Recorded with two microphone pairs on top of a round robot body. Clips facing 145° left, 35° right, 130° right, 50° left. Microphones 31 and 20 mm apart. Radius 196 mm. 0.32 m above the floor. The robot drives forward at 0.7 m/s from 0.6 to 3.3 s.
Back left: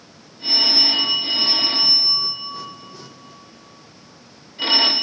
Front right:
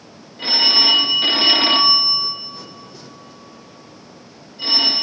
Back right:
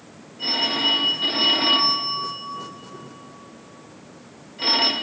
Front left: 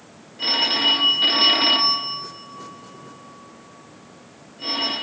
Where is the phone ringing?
5° right, 1.2 m; by 4.9 s 170° right, 1.0 m.